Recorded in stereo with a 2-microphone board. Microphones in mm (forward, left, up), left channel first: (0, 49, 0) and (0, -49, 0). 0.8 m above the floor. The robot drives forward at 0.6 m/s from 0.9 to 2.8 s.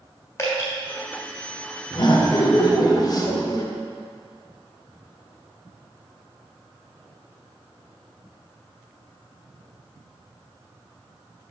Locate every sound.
0.4 s dripping: 30° left (ahead or behind), 1.7 m
1.9 s laughter: 45° left (ahead or behind), 0.8 m; by 3.7 s 40° left (ahead or behind), 0.9 m